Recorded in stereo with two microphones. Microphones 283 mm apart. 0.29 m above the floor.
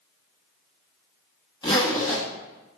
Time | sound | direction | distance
1.6 | a zipper | 15° left (ahead or behind) | 1.1 m